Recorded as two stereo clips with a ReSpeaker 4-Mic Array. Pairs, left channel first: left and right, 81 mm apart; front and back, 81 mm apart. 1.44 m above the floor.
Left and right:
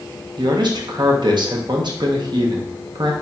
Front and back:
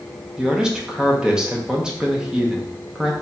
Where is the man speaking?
100° right, 0.8 m.